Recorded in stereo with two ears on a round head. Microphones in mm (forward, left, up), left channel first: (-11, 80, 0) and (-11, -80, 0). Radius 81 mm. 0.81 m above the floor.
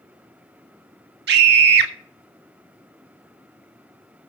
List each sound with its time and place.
1.3 s a scream: 60° right (ahead or behind), 1.8 m